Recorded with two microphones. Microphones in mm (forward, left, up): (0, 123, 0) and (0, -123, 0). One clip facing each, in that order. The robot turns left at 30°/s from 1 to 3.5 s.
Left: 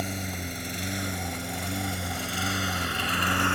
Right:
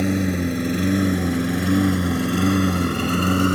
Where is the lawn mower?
75° right (ahead or behind); by 3.6 s 45° right (ahead or behind).